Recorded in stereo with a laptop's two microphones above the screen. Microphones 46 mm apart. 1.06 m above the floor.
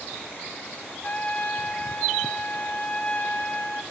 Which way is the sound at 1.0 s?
35° left (ahead or behind).